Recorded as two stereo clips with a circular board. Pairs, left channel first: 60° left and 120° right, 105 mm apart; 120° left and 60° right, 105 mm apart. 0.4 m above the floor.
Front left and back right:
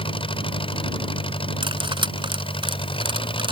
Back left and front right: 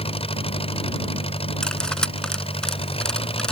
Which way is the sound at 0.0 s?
95° left.